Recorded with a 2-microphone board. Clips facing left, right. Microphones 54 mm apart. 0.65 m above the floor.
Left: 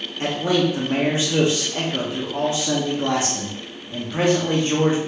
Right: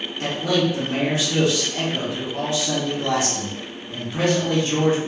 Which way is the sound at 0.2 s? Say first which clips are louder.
Left 1 dB; 30° left (ahead or behind).